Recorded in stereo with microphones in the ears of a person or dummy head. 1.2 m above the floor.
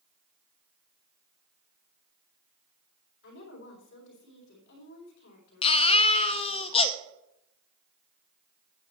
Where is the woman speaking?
65° left (ahead or behind), 4 m.